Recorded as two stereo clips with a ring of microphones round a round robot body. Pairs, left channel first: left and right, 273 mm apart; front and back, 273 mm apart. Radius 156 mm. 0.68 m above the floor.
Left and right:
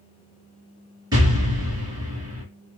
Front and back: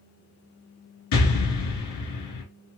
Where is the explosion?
10° right, 1.5 m.